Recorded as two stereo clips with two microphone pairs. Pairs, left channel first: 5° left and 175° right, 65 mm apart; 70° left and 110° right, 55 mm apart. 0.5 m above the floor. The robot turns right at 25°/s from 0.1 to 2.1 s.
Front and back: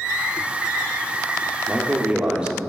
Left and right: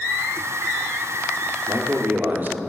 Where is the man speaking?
120° right, 0.8 m; by 2.6 s 110° right, 0.8 m.